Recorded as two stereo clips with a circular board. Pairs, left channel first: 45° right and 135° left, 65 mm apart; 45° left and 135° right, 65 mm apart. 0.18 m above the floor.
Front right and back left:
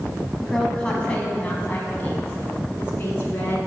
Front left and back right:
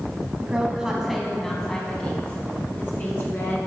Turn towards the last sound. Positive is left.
turn(degrees=0)